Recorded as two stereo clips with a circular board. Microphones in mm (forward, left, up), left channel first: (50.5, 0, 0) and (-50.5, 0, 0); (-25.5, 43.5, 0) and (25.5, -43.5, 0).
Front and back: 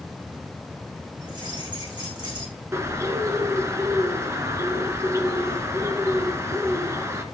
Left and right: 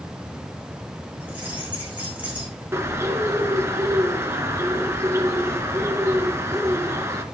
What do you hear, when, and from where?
1.2 s keys jangling: 135° right, 9 m
2.7 s a bird: 120° right, 1.7 m